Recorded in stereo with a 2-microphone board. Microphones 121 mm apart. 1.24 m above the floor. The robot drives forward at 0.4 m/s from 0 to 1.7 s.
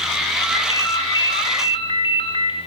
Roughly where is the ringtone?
Left.